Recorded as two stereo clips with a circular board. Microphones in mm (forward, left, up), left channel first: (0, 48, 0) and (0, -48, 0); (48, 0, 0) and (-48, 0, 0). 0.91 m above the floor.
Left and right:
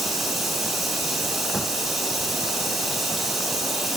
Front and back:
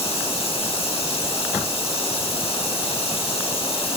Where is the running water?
5° right, 1.7 m.